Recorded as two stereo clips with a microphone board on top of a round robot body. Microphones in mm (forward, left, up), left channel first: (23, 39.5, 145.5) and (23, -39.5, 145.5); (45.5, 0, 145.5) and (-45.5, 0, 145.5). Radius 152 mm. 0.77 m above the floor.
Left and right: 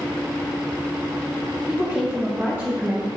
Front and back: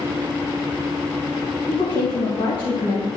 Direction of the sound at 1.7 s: 35° right.